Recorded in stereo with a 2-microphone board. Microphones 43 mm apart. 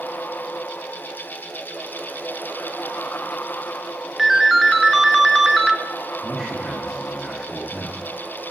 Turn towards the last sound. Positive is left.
turn(degrees=5)  # may be behind; listen again after turning